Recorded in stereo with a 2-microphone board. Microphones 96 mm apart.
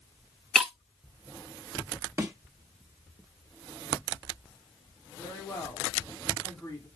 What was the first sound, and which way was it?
Breaking glass, centre (ahead or behind).